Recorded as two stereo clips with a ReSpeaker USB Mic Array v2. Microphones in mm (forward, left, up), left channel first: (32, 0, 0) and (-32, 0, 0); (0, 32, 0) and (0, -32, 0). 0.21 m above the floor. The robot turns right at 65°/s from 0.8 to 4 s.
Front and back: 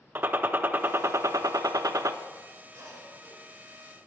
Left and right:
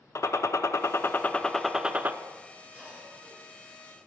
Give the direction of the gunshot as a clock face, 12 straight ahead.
8 o'clock.